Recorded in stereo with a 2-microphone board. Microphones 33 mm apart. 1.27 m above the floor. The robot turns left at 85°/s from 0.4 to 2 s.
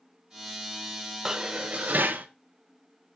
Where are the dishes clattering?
20° right, 0.6 m; by 2.3 s 80° right, 0.6 m.